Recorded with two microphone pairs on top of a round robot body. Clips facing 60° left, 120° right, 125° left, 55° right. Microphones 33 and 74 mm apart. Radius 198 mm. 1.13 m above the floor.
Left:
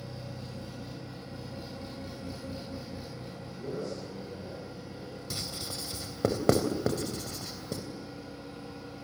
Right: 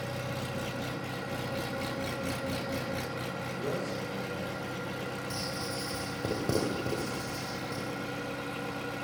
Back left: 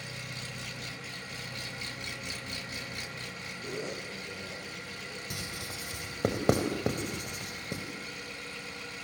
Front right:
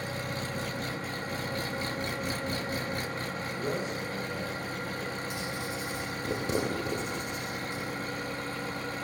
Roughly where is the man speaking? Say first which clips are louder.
Right 1 dB, front right 4 dB; right.